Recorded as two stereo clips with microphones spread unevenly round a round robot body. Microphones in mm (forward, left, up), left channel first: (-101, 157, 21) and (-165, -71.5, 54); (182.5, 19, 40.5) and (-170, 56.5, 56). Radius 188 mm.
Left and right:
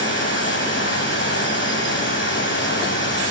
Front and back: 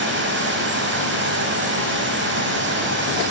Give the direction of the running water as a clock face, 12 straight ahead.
8 o'clock.